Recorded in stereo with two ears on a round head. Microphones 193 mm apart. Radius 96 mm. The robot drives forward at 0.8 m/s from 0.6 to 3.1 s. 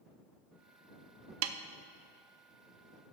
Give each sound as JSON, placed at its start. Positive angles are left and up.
{"t": 1.4, "sound": "a snare drum", "side_deg": -70, "distance_m": 0.6}